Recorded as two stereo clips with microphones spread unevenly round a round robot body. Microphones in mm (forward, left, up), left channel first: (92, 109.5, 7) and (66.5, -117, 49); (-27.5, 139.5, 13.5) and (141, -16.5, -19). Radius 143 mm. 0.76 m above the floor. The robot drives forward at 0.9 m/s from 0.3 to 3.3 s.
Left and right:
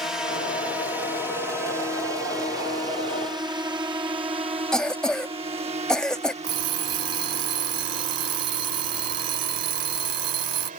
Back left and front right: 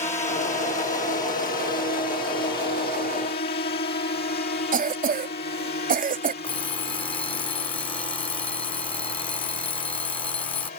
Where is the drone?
150° left; by 10.8 s 160° right.